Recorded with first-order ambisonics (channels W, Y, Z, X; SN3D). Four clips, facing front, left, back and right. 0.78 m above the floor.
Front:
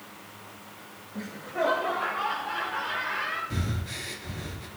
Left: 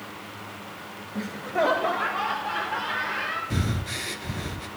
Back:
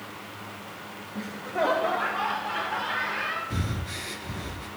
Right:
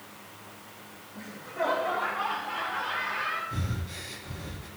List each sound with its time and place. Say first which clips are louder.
1.1 s laughter: left 7 dB, back 2 dB; 90° left, 0.5 m; by 3.4 s 120° left, 2.5 m
3.5 s breathing: left 7 dB, back 1 dB; 90° left, 0.7 m